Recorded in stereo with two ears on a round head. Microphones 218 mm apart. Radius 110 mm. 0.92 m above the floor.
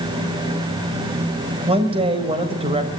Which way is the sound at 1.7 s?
25° right (ahead or behind).